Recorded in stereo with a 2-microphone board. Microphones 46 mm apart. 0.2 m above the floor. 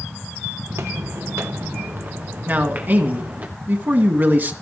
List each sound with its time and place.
0.7 s footsteps: 75° right (ahead or behind), 1.5 m; by 3.5 s 35° right (ahead or behind), 3 m
2.5 s a man speaking: 45° right (ahead or behind), 2 m